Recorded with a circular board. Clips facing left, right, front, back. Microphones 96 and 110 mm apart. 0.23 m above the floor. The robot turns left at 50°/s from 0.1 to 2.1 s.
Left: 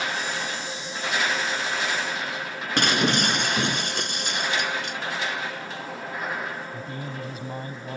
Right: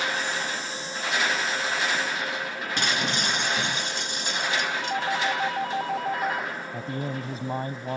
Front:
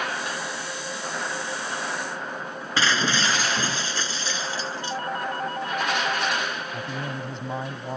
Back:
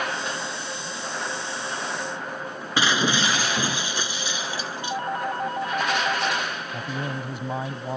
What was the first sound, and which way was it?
Breaking glass, 105° left.